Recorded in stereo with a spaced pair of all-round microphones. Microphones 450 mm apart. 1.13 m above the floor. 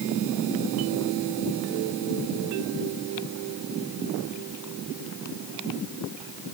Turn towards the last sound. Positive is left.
No sound to turn to.